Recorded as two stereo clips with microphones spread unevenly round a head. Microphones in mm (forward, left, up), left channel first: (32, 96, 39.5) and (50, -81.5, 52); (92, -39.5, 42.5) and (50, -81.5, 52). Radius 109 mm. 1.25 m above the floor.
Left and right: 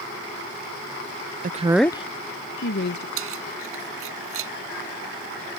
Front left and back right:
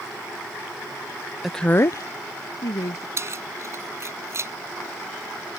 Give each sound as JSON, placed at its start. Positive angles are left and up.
{"t": 1.4, "sound": "a woman speaking", "azimuth_deg": -45}
{"t": 3.2, "sound": "keys jangling", "azimuth_deg": -95}